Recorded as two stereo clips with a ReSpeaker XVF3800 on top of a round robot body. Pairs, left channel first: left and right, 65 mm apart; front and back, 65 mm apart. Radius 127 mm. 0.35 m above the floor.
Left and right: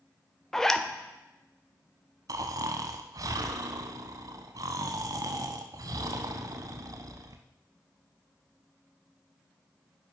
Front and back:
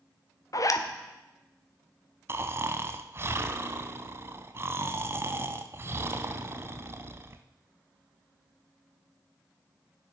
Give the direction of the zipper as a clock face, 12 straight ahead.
12 o'clock.